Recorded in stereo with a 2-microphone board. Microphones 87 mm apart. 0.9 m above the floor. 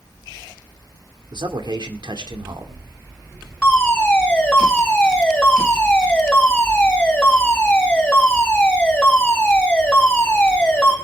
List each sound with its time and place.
1.3 s a man speaking: 60° right (ahead or behind), 2 m
3.6 s a fire alarm: 10° left (ahead or behind), 6 m